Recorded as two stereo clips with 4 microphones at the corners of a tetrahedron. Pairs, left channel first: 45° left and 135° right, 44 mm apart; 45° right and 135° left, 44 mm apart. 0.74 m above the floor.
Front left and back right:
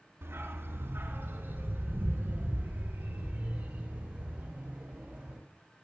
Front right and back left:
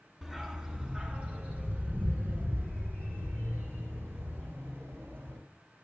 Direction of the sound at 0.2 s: 145° right.